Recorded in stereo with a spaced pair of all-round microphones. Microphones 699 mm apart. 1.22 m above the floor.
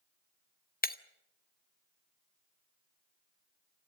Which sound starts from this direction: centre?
Breaking glass, at 0.8 s.